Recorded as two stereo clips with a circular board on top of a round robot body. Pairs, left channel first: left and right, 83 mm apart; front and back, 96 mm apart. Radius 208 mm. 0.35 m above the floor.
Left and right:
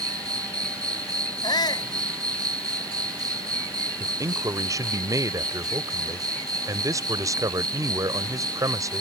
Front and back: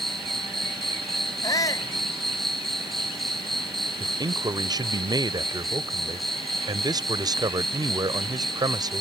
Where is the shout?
55° left.